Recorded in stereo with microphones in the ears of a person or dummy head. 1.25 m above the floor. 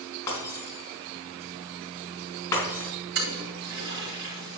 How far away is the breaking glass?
About 4.5 m.